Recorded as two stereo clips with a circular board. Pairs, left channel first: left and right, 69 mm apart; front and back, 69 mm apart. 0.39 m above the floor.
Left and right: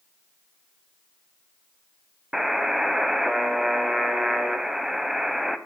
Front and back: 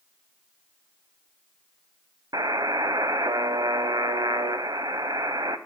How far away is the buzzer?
About 0.5 m.